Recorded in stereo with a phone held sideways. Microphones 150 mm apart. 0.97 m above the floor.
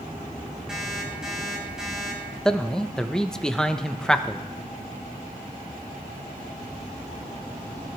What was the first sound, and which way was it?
An alarm clock, 5° right (ahead or behind).